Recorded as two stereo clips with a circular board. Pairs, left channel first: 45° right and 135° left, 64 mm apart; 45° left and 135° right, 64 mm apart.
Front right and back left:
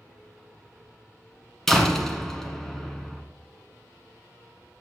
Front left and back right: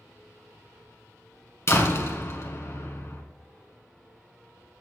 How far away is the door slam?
About 1.5 m.